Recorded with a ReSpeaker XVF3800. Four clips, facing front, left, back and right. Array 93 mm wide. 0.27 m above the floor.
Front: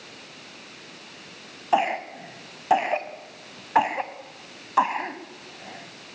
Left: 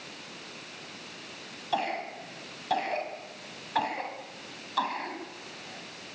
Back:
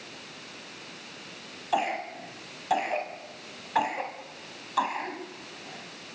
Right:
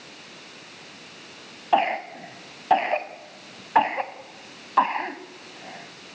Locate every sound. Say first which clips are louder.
1.7 s a cough: right 9 dB, front 5 dB; 55° right, 2.0 m